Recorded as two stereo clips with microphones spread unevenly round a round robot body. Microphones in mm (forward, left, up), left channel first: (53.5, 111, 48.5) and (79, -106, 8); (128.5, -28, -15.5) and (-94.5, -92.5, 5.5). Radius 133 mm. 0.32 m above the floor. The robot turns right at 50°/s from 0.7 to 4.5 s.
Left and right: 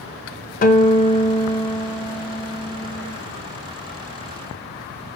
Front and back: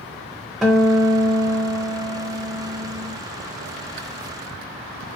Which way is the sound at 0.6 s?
95° left.